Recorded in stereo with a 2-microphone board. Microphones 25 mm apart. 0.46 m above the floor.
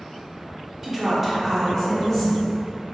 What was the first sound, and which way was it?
A woman speaking, 15° right (ahead or behind).